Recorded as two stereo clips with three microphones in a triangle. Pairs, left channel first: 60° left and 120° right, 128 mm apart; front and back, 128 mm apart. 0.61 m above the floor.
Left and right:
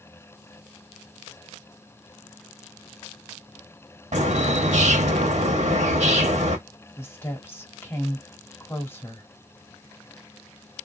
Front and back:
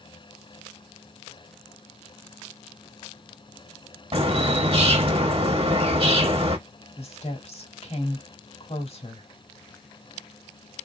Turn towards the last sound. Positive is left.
turn(degrees=-5)